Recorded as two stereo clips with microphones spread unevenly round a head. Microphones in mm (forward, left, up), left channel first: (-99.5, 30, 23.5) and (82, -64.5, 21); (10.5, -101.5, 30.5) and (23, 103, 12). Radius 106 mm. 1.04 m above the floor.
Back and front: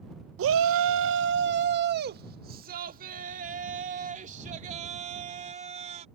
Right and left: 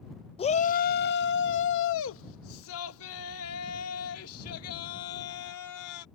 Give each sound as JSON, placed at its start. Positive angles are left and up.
{"t": 0.4, "sound": "a shout", "azimuth_deg": -30}